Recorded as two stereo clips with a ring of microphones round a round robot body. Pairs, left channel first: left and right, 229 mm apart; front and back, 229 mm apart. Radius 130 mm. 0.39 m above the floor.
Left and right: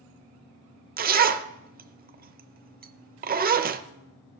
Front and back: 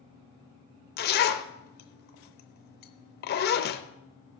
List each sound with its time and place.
1.0 s a zipper: 45° right, 0.7 m